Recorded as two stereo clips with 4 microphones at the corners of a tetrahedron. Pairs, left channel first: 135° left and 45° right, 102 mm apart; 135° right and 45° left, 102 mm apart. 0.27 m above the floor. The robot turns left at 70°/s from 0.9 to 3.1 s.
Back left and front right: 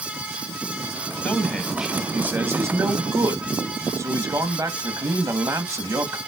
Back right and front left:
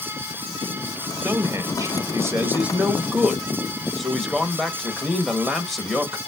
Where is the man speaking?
80° left, 1.0 m; by 6.2 s 50° right, 1.0 m.